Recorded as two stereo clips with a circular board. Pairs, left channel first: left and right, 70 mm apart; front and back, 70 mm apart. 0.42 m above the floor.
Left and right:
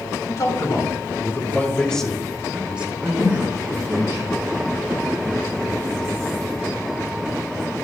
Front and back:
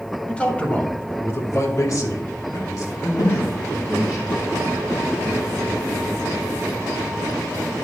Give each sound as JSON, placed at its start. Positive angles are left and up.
{"t": 0.3, "sound": "a man speaking", "azimuth_deg": 75, "distance_m": 2.5}
{"t": 3.2, "sound": "a snare drum", "azimuth_deg": 15, "distance_m": 6.5}